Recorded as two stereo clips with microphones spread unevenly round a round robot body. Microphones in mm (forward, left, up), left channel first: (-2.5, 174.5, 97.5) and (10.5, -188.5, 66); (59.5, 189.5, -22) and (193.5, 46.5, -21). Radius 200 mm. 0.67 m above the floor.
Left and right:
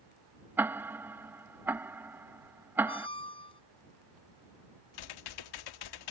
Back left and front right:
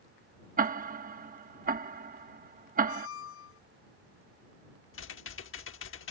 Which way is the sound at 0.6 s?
5° right.